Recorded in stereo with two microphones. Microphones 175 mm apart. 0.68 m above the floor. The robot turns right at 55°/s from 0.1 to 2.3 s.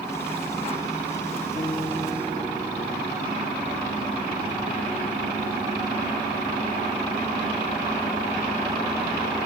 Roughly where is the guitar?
Behind left.